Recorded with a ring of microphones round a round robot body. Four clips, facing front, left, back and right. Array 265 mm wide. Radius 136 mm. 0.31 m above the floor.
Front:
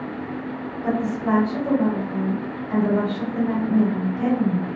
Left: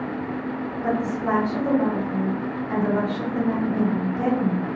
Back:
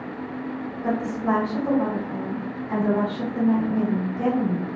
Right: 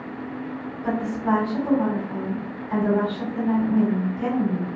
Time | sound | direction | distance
0.8 | a woman speaking | 85° left | 1.8 m